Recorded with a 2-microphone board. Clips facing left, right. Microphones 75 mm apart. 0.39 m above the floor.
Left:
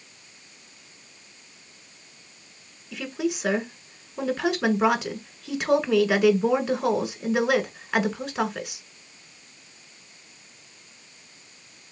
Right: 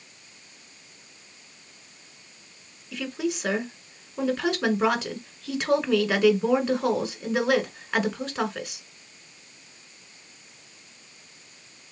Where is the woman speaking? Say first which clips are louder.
Left 1 dB; centre (ahead or behind), 1.6 m.